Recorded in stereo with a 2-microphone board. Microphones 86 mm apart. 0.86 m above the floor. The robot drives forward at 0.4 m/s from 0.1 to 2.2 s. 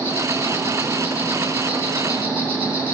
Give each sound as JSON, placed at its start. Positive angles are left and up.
{"t": 0.0, "sound": "an insect", "side_deg": -25, "distance_m": 7.5}